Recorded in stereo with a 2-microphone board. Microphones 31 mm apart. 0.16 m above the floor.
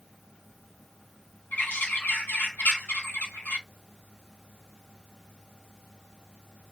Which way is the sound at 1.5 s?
80° left.